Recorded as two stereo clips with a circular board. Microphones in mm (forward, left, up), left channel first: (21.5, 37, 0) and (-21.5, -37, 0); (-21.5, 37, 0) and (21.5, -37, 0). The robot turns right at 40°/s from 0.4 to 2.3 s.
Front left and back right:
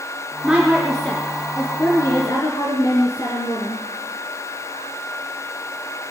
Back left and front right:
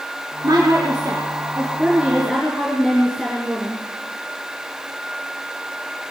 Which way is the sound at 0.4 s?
40° right.